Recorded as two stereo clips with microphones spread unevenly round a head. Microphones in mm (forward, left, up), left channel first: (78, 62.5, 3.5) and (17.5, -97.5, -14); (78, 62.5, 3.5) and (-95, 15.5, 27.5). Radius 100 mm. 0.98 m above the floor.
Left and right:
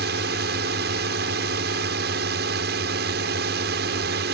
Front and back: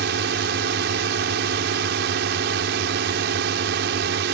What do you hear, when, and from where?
0.0 s a drone: 135° right